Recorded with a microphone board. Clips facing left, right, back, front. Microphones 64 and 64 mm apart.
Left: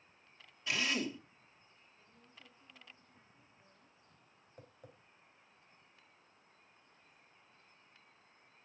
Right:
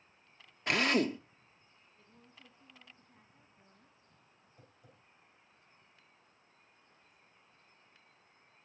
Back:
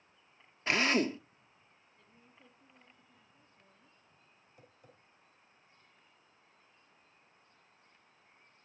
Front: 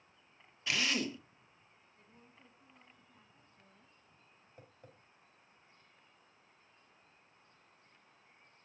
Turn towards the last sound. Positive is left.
turn(degrees=50)